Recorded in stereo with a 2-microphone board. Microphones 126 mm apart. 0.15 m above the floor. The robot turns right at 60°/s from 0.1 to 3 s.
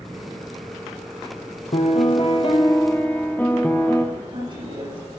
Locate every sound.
1.7 s a piano: 85° left, 1.4 m; by 4.0 s 165° left, 1.4 m
4.2 s a woman speaking: 45° right (ahead or behind), 6.5 m